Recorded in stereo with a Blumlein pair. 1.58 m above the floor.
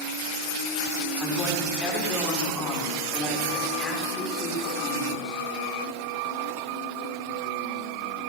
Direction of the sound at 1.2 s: 15° left.